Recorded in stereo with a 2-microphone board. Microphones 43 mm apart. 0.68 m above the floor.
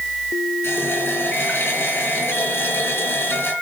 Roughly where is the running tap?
Left.